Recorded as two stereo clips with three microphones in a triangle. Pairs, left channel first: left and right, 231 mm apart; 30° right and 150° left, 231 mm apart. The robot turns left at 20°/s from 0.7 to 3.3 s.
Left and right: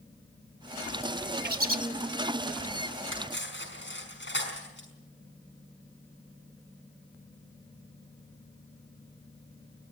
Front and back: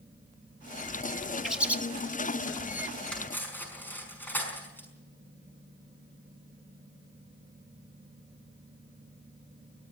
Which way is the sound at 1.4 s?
120° right.